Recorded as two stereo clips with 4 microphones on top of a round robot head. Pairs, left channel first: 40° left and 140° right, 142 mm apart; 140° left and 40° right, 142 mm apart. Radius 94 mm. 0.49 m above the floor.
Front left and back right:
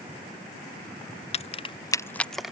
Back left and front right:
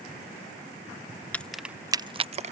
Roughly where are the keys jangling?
Ahead left.